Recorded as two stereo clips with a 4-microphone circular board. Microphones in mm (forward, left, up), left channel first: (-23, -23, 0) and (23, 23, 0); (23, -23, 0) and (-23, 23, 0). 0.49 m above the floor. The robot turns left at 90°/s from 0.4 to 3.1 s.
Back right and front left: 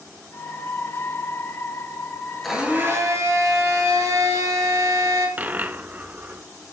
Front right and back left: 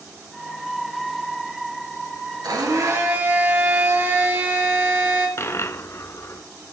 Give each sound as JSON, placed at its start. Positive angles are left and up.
{"t": 2.4, "sound": "a blender", "azimuth_deg": 135, "distance_m": 2.5}
{"t": 5.4, "sound": "a dropped coin", "azimuth_deg": -15, "distance_m": 0.6}